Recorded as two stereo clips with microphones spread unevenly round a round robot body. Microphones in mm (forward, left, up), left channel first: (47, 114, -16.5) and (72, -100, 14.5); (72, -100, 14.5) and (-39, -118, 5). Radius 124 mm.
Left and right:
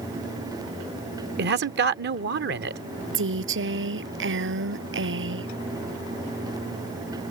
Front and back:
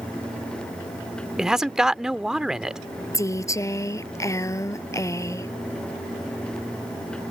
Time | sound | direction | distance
1.4 | a man speaking | 95° right | ?
3.1 | a woman speaking | 55° right | ?